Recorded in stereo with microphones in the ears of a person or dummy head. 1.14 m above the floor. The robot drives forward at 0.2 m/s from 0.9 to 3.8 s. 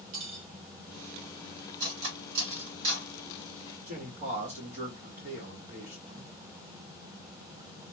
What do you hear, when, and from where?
0.1 s cutlery clinking: 85° right, 1.9 m
1.8 s cutlery clinking: 80° right, 2.5 m
3.9 s a man speaking: 45° right (ahead or behind), 1.3 m